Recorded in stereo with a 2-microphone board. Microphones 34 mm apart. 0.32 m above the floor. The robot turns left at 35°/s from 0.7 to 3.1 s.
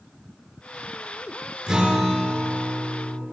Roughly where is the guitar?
Behind right.